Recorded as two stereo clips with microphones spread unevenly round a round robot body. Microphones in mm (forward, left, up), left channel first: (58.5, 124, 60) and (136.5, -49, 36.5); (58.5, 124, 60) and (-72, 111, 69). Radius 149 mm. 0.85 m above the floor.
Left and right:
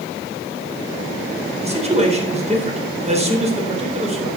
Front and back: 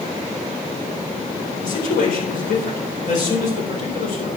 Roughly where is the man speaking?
Ahead.